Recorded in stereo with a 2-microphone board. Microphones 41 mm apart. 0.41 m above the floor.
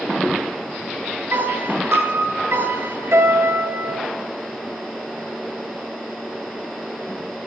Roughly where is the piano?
Right.